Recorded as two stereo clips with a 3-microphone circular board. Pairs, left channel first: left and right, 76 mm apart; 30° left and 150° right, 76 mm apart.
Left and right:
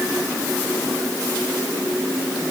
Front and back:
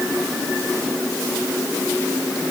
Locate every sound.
Only background noise.